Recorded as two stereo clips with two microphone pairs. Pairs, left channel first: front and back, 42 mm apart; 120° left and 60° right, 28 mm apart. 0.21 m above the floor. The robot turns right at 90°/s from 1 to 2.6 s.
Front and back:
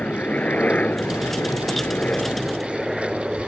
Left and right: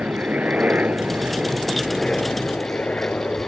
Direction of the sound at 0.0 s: 50° right.